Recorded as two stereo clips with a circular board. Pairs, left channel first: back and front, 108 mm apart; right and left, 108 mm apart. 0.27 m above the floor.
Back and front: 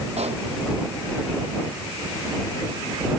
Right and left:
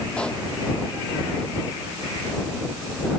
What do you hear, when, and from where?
0.2 s a pop: 10° right